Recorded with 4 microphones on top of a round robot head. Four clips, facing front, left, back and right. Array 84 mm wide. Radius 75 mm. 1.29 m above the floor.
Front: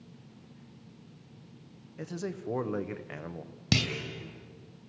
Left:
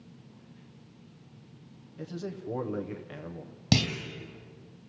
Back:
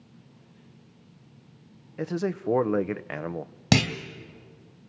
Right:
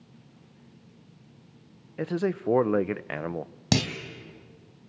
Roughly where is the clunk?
Behind.